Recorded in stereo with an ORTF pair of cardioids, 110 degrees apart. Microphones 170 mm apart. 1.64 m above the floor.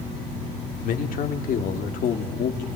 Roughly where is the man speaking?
Ahead left.